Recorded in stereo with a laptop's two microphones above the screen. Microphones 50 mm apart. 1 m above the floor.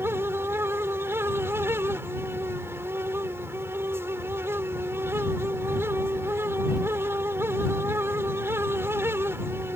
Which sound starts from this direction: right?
A fan, at 0.0 s.